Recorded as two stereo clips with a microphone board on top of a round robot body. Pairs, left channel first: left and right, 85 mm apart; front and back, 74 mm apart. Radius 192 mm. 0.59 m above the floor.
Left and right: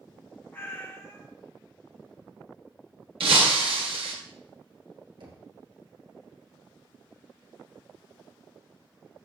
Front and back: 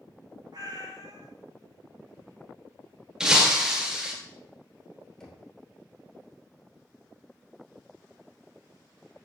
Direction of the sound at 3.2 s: 100° right.